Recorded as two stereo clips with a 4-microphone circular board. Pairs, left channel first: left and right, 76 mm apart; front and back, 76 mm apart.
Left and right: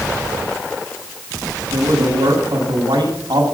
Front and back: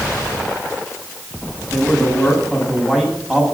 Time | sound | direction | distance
1.7 | a man speaking | 95° right | 8 m